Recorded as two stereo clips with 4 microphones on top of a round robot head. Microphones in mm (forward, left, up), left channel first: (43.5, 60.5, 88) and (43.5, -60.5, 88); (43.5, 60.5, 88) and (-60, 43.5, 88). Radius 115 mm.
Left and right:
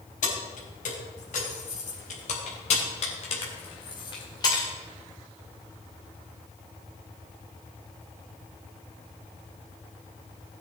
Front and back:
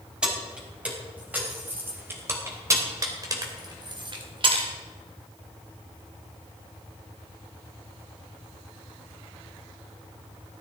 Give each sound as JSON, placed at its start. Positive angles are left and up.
{"t": 0.2, "sound": "keys jangling", "azimuth_deg": 105, "distance_m": 4.0}